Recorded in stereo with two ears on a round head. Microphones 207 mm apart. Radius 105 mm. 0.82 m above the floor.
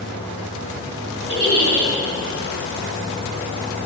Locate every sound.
1.3 s a giggle: 65° right (ahead or behind), 4.5 m